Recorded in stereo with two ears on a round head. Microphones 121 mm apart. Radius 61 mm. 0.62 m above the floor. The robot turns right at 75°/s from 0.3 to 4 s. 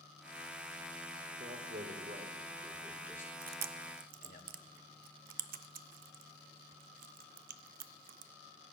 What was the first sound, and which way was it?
A man speaking, 60° right (ahead or behind).